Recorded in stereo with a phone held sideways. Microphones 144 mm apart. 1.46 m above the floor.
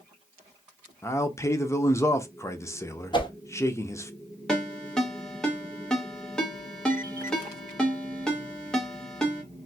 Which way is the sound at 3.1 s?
30° left (ahead or behind).